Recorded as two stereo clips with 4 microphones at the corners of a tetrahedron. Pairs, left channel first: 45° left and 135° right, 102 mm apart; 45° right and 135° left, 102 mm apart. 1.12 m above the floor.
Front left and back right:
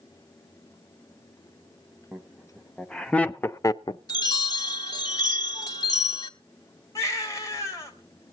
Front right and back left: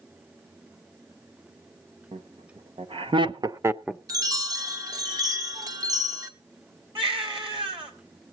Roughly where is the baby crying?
Left.